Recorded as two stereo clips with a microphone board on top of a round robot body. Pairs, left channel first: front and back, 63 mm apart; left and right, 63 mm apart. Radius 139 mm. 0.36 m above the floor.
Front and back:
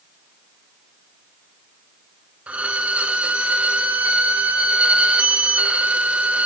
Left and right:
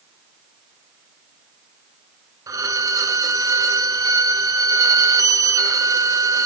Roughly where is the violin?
Right.